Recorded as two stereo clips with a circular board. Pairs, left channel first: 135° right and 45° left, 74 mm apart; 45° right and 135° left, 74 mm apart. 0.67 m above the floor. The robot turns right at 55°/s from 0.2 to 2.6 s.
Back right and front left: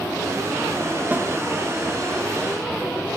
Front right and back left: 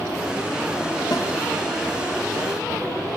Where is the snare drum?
20° right, 0.7 m; by 1.3 s 15° right, 0.7 m.